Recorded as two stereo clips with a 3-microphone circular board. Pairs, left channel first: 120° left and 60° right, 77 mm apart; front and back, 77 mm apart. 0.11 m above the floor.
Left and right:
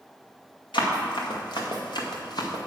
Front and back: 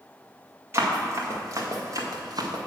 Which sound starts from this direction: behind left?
Running footsteps, at 0.7 s.